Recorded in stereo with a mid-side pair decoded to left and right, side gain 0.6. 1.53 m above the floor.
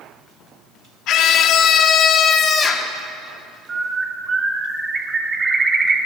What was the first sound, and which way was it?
A scream, 60° left.